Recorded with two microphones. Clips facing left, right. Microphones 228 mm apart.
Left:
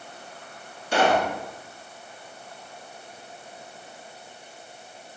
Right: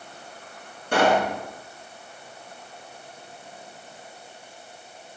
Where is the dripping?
No dripping in this recording.